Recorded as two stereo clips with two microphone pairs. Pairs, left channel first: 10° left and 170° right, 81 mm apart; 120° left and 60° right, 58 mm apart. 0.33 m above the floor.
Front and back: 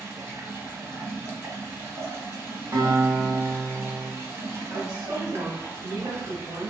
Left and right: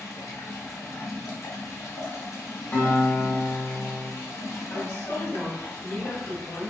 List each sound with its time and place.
0.0 s running water: 135° left, 0.7 m
2.7 s a guitar: 160° left, 1.5 m
4.7 s a woman speaking: 145° left, 1.6 m